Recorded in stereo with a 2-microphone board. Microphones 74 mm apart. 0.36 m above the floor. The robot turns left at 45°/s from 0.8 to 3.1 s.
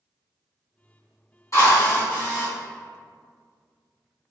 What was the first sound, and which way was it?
A drill, 45° left.